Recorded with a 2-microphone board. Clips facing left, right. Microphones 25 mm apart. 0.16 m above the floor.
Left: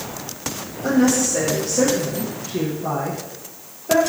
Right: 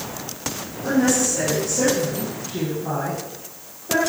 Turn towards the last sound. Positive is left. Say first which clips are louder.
# left 2 dB
turn(degrees=40)  # may be behind; listen again after turning